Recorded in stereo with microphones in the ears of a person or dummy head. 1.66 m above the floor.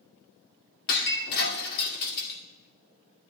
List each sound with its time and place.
0.9 s breaking glass: 55° left (ahead or behind), 2 m